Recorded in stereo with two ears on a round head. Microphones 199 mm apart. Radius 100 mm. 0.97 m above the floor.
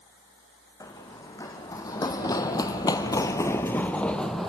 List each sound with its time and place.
0.8 s running footsteps: 15° left (ahead or behind), 3 m; by 4.5 s centre (ahead or behind), 1.4 m